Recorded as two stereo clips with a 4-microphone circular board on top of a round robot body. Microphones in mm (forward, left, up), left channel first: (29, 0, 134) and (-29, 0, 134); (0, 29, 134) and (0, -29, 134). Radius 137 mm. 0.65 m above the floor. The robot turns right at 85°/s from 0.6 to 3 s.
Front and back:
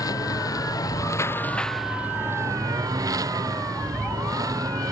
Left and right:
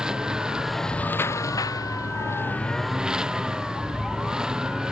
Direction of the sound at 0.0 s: 10° right.